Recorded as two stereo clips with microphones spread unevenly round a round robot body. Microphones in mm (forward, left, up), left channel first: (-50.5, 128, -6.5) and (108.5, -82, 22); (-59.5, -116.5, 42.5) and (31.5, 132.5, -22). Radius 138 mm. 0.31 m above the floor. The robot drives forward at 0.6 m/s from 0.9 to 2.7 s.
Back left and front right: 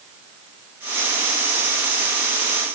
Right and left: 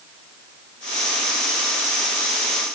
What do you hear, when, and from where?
Only background noise.